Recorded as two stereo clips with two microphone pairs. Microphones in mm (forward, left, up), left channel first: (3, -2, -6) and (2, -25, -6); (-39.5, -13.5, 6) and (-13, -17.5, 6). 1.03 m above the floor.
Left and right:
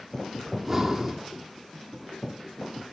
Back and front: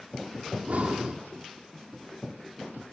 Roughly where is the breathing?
Ahead.